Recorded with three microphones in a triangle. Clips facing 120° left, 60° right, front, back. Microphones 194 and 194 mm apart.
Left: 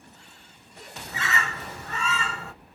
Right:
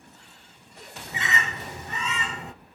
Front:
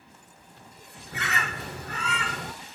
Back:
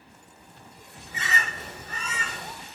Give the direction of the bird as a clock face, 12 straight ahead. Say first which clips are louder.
Even, front 1 dB; 12 o'clock.